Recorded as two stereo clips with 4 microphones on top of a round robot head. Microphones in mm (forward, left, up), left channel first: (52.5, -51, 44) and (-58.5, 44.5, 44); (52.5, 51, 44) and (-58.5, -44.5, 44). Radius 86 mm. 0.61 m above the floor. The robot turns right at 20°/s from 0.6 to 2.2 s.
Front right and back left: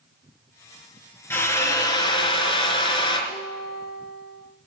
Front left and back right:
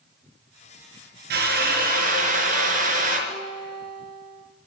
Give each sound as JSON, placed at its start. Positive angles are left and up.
{"t": 1.3, "sound": "a drill", "azimuth_deg": -115, "distance_m": 4.0}
{"t": 3.3, "sound": "a guitar", "azimuth_deg": -20, "distance_m": 3.5}